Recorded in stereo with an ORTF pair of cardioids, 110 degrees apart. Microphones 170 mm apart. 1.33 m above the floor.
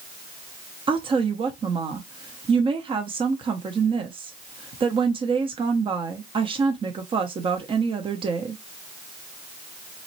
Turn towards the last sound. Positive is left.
turn(degrees=-30)